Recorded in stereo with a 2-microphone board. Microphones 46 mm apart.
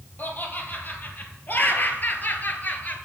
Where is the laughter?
40° left (ahead or behind), 3 m.